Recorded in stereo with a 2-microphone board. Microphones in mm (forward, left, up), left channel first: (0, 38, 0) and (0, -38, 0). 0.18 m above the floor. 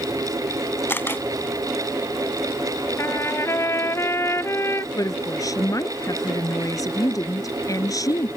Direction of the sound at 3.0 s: 40° left (ahead or behind).